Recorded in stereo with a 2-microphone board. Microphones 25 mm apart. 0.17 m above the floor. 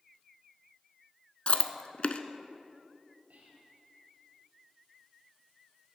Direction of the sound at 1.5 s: 50° left (ahead or behind).